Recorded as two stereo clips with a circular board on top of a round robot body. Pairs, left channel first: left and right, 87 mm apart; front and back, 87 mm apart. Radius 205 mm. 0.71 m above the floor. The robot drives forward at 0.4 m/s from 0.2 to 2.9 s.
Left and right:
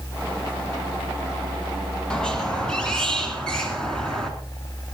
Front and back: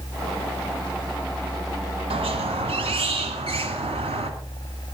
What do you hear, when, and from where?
2.1 s a squeak: 175° left, 1.6 m